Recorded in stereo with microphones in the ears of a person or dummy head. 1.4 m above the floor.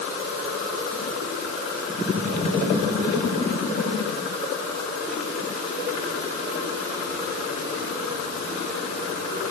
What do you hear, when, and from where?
Only background noise.